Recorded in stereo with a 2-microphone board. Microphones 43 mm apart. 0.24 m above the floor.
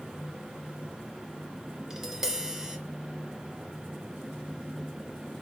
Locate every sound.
1.9 s tapping: 10° right (ahead or behind), 1.1 m